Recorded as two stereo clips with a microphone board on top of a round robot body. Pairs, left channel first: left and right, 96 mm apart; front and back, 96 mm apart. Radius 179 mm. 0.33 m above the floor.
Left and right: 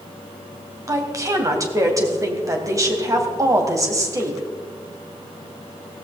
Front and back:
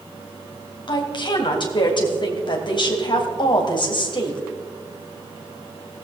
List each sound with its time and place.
0.9 s a woman speaking: 35° right, 2.5 m